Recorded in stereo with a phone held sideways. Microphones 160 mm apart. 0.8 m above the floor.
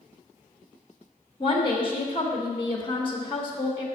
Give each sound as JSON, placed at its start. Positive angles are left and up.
{"t": 1.4, "sound": "a woman speaking", "side_deg": 35, "distance_m": 1.0}